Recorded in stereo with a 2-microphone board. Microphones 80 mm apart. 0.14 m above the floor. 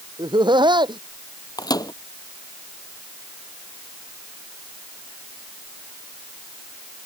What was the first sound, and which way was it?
Laughter, 70° right (ahead or behind).